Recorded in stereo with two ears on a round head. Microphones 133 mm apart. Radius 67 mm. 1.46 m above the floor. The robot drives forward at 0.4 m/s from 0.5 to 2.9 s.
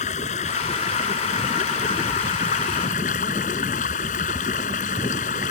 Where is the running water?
50° left (ahead or behind); by 5.5 s 55° left (ahead or behind).